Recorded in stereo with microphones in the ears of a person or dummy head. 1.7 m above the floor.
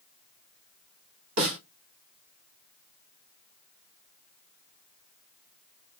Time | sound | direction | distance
1.4 | a snare drum | 75° right (ahead or behind) | 2.5 m